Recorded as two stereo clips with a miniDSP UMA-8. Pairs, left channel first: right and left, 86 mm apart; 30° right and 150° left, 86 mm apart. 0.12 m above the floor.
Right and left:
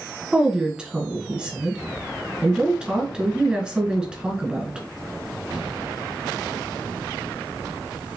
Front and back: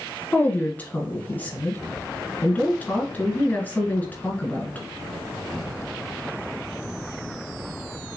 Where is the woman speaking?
20° left, 1.5 m.